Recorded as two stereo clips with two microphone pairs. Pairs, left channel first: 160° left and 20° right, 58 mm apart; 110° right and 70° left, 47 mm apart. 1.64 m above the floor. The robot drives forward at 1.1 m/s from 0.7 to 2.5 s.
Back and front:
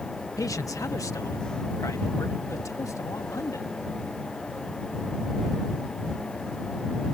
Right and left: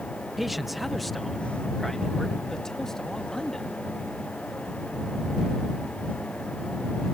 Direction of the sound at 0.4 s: 155° left.